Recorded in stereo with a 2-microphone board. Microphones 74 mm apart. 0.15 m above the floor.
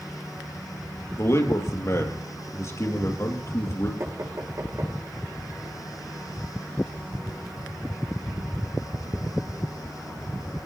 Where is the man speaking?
40° left (ahead or behind), 3.5 m.